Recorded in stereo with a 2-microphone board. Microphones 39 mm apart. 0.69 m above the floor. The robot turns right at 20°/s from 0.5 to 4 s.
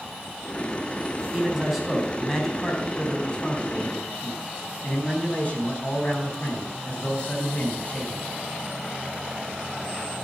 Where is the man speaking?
15° right, 4 m; by 8.3 s 40° left, 4 m.